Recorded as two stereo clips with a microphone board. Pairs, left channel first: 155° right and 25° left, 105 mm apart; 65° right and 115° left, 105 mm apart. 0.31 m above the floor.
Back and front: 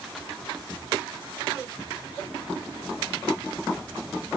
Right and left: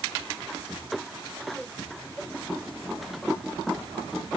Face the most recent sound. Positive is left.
No sound to turn to.